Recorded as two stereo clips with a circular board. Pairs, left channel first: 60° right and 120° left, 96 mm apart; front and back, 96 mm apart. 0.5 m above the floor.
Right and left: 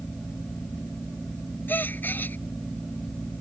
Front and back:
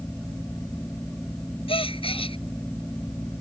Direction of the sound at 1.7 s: 10° left.